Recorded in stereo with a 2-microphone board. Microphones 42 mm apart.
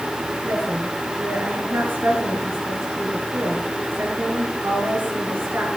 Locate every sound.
0.4 s a woman speaking: 60° right (ahead or behind), 5.5 m